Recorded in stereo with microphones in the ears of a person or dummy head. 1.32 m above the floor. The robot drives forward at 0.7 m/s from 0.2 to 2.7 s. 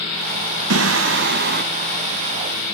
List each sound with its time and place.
0.7 s singing: 75° right (ahead or behind), 1.0 m; by 1.6 s 45° right (ahead or behind), 1.3 m